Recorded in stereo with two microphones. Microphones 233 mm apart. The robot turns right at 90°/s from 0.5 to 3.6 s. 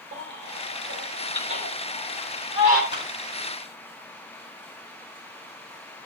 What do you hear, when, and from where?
0.1 s a baby crying: 55° right (ahead or behind), 3.5 m; by 2.8 s 80° left, 3.5 m
2.9 s a clap: 50° left (ahead or behind), 7 m; by 3.1 s 35° left (ahead or behind), 7 m